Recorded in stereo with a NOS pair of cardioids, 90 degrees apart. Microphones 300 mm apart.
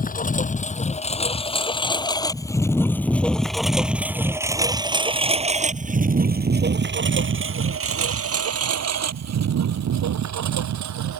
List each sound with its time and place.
0.0 s a lawn mower: 25° left; by 11.2 s 70° right